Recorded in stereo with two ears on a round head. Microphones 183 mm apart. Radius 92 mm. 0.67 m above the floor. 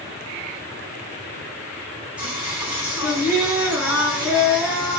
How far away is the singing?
About 1.5 m.